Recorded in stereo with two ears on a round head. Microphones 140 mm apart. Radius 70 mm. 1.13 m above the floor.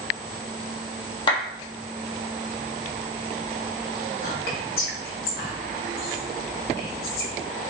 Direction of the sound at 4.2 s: 65° left (ahead or behind).